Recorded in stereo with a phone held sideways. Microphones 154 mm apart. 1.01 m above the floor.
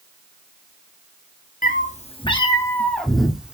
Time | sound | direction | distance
1.6 | a cat meowing | 60° left (ahead or behind) | 0.8 m